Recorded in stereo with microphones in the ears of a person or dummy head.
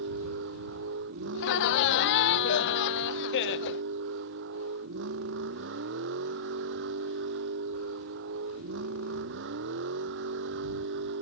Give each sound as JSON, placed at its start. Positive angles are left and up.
{"t": 0.0, "sound": "a vehicle", "side_deg": -60}
{"t": 1.3, "sound": "laughter", "side_deg": 60}